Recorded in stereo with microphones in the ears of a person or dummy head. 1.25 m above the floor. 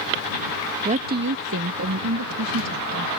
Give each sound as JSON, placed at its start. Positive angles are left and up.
{"t": 0.8, "sound": "a woman speaking", "side_deg": -25}